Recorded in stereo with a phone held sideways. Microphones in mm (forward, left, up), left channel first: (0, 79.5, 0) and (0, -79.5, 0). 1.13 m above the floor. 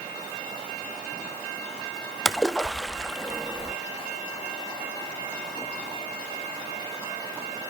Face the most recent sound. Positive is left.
turn(degrees=0)  # may be behind; listen again after turning